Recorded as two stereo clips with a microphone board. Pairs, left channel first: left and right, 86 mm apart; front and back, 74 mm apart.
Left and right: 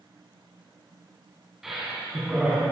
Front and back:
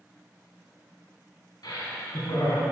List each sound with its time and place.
1.6 s laughter: 5° right, 2.5 m